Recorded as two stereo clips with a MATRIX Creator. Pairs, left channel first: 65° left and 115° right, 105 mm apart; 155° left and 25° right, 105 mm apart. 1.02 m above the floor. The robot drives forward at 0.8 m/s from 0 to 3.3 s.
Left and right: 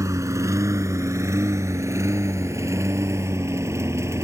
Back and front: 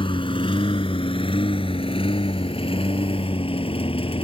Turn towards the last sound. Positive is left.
turn(degrees=-175)